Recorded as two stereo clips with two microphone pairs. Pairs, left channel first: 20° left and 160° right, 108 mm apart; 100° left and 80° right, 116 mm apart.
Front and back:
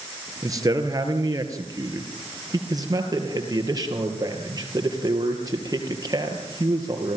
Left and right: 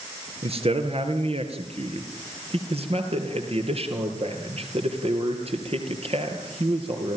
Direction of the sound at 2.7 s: 105° right.